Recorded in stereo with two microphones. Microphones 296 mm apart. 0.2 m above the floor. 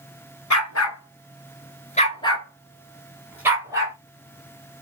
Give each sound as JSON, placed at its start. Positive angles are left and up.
{"t": 0.5, "sound": "a dog barking", "side_deg": 70, "distance_m": 1.1}